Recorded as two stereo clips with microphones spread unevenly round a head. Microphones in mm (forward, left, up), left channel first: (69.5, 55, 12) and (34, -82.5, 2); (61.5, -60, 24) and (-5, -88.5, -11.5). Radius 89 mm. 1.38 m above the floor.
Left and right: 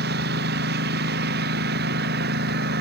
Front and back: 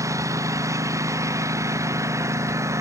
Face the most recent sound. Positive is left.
turn(degrees=-110)